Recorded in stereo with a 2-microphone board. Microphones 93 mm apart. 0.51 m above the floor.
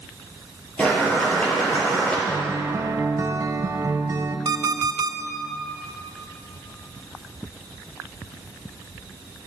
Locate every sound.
0.8 s boiling: 15° left (ahead or behind), 3 m
2.3 s a guitar: 40° right (ahead or behind), 0.5 m
4.5 s an alarm clock: 55° right (ahead or behind), 0.6 m